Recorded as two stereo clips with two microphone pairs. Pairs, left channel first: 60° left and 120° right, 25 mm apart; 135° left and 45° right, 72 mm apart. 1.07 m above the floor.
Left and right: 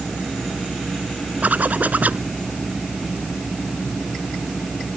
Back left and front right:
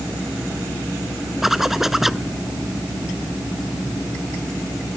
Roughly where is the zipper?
Behind right.